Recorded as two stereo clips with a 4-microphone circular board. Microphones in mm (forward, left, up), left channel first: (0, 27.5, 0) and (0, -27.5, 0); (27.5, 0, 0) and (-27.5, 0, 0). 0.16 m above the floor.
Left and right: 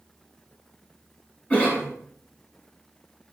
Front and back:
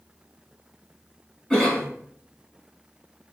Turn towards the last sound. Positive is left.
turn(degrees=60)